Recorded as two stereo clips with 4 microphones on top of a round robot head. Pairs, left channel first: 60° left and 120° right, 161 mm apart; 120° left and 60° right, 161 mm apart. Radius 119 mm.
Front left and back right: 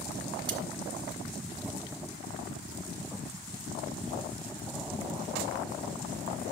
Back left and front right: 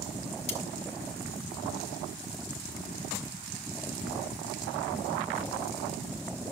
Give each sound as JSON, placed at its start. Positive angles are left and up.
{"t": 0.5, "sound": "cutlery clinking", "azimuth_deg": 175, "distance_m": 2.0}